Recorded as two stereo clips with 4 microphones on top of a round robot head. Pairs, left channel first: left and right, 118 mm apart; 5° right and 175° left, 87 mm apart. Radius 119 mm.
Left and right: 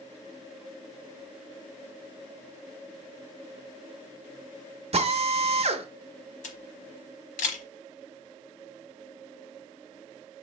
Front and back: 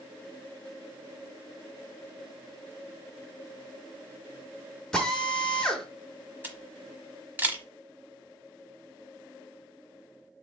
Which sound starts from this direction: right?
A drill, at 4.9 s.